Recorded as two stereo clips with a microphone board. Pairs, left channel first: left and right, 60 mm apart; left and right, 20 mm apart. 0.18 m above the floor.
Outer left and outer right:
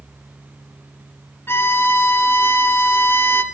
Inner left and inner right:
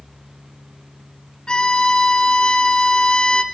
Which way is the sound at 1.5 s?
40° left (ahead or behind).